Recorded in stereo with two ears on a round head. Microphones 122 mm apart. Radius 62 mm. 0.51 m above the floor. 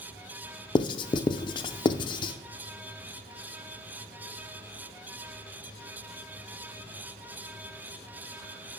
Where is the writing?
35° left (ahead or behind), 0.5 m.